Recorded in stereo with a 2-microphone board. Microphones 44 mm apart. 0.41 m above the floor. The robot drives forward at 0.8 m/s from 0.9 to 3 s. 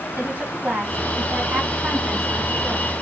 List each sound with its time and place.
0.2 s a woman speaking: 40° right (ahead or behind), 2.5 m; by 2.9 s 25° right (ahead or behind), 3.5 m